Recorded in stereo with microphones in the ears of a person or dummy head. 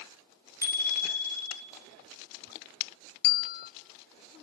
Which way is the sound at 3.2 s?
55° left (ahead or behind).